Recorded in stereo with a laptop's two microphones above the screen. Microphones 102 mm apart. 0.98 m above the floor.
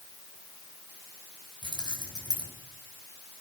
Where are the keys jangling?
45° left (ahead or behind), 5 m.